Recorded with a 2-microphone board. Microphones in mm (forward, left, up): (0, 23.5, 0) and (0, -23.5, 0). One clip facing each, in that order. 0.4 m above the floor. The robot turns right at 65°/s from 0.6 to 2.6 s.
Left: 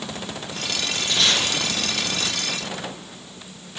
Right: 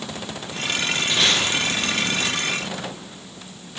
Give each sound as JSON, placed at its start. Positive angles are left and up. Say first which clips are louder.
{"t": 1.1, "sound": "tape being pulled", "louder": "even", "side_deg": -25, "distance_m": 3.5}